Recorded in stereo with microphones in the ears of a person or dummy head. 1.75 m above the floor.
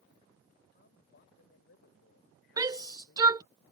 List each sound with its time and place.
0.7 s a man speaking: 50° left (ahead or behind); by 3.5 s 65° left (ahead or behind)
2.6 s a shout: 20° right (ahead or behind)